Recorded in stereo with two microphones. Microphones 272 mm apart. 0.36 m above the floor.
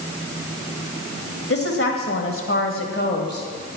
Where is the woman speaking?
55° left (ahead or behind), 1.9 m; by 3.5 s 40° left (ahead or behind), 1.9 m.